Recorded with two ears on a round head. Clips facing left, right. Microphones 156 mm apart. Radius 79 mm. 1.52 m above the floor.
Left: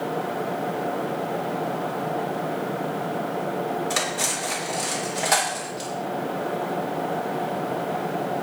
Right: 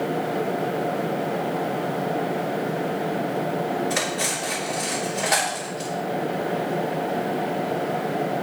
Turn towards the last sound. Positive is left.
turn(degrees=45)  # may be behind; listen again after turning